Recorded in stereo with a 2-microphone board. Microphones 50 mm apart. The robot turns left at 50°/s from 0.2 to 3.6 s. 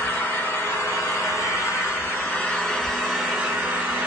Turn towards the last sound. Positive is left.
turn(degrees=-30)